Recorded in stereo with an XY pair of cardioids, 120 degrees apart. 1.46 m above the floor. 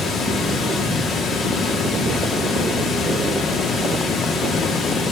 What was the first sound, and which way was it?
Running water, 55° left.